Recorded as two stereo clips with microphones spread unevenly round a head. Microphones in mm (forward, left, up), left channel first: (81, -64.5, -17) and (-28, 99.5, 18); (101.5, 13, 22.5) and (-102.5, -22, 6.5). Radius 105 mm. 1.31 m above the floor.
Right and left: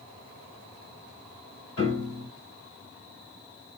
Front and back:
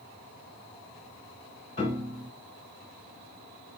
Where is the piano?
50° right, 1.8 m.